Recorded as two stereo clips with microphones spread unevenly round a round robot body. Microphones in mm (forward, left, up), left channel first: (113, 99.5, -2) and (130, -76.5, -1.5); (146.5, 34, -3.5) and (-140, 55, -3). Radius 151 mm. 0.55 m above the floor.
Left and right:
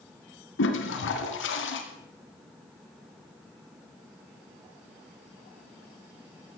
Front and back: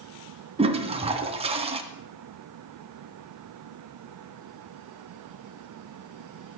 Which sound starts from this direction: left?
A toilet flushing, at 0.6 s.